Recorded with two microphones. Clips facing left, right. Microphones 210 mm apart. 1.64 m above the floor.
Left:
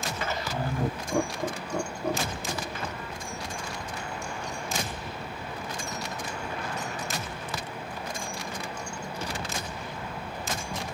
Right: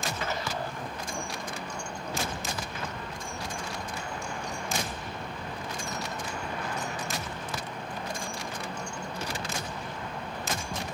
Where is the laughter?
75° left (ahead or behind).